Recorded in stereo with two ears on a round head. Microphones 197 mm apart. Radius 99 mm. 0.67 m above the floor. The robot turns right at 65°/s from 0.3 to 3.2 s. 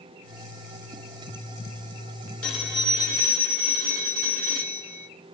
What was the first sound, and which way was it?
A phone ringing, 175° left.